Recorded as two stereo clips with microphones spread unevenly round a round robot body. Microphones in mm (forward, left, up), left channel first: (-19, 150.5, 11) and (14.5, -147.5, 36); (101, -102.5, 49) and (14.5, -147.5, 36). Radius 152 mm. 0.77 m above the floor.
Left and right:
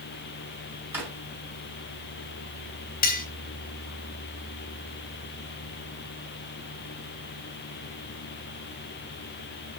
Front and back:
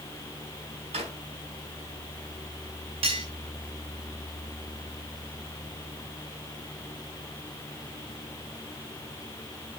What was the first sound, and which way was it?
A drawer, 165° right.